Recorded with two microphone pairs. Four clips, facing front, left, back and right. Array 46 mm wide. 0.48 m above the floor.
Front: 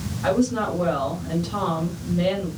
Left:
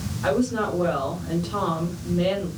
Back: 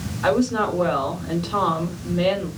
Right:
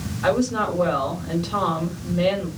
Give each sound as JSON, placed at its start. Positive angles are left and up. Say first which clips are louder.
{"t": 0.2, "sound": "a woman speaking", "louder": "right 2 dB, back 2 dB", "azimuth_deg": -145, "distance_m": 1.5}